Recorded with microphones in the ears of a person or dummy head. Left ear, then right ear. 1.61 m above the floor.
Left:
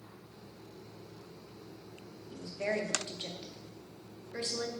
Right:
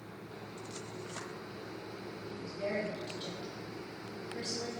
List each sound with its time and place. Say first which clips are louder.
2.3 s a woman speaking: left 2 dB; 25° left (ahead or behind), 0.6 m